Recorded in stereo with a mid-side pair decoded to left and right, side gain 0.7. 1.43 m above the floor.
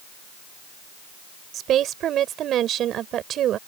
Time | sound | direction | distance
1.5 | a woman speaking | 45° right | ?